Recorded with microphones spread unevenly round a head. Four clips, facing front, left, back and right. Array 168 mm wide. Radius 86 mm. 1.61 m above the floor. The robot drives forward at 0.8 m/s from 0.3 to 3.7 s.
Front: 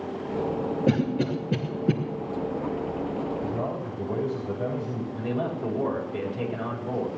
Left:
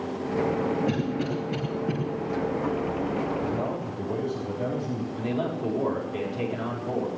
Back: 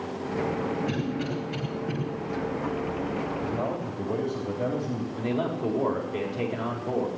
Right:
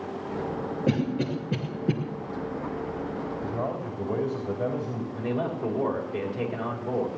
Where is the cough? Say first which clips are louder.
Right 1 dB, front 5 dB; 5° right, 2.5 m; by 1.9 s 10° right, 1.8 m.